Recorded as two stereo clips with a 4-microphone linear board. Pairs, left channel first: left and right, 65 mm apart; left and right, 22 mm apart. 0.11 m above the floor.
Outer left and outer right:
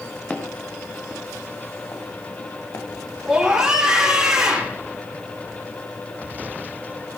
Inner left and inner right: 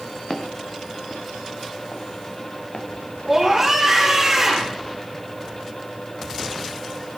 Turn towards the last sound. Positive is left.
turn(degrees=-10)  # may be behind; listen again after turning